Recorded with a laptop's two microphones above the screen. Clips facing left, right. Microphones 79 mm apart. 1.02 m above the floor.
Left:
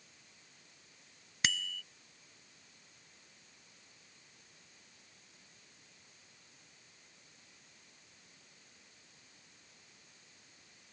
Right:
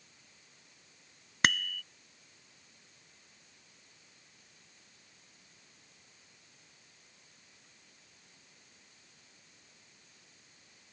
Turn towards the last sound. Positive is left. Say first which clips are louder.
# right 7 dB
turn(degrees=-55)  # may be behind; listen again after turning